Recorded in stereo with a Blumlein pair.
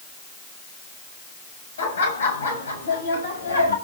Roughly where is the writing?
I don't hear writing.